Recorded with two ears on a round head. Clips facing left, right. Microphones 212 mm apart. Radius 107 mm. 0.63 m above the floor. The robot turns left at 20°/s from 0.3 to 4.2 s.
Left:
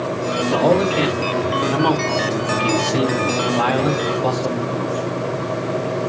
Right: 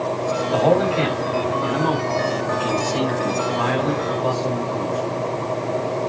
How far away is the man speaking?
About 4 m.